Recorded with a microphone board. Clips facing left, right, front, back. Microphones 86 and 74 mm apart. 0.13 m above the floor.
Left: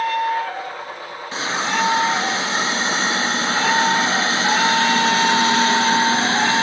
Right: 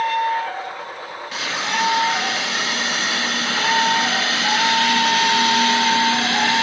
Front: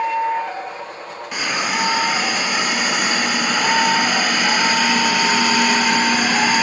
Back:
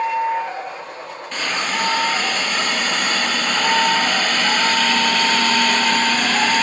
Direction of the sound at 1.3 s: 70° left.